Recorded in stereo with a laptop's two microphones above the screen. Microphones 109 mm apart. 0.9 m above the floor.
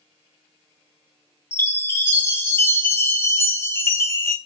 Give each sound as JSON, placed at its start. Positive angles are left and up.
{"t": 1.5, "sound": "a chime", "side_deg": 20, "distance_m": 0.6}